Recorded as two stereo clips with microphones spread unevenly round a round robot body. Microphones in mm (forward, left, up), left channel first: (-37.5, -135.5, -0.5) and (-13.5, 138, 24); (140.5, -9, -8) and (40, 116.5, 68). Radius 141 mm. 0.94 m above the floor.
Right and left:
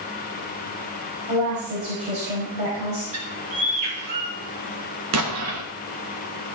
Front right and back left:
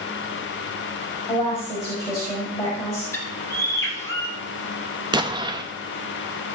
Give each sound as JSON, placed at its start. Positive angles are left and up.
{"t": 1.3, "sound": "a woman speaking", "azimuth_deg": 15, "distance_m": 5.0}
{"t": 3.1, "sound": "a bird", "azimuth_deg": 15, "distance_m": 2.5}
{"t": 5.1, "sound": "an explosion", "azimuth_deg": 55, "distance_m": 1.5}